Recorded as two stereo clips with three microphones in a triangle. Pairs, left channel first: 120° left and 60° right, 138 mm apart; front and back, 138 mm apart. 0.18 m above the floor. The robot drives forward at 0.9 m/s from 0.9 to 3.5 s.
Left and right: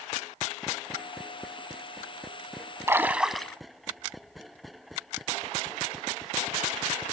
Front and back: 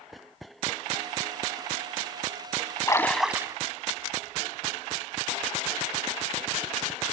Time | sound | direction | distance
2.9 | a splash | 15° right | 0.7 m